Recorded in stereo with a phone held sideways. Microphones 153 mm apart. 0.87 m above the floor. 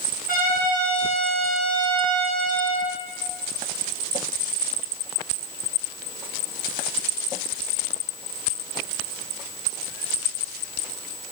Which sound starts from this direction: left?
A trumpet, at 0.3 s.